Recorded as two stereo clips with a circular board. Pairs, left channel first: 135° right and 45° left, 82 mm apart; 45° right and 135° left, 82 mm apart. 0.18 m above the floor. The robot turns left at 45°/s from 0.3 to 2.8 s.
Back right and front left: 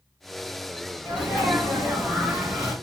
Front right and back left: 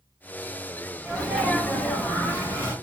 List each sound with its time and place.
1.1 s a sneeze: 40° left, 1.4 m; by 2.8 s 35° right, 1.4 m